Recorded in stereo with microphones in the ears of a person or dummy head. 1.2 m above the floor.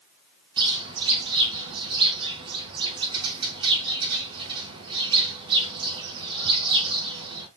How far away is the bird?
About 4 m.